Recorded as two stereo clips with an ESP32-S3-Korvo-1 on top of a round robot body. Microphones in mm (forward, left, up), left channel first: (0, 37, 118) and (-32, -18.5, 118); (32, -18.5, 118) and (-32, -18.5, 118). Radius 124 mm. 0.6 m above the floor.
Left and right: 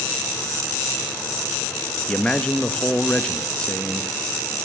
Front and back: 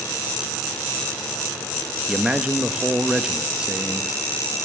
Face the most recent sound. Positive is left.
turn(degrees=120)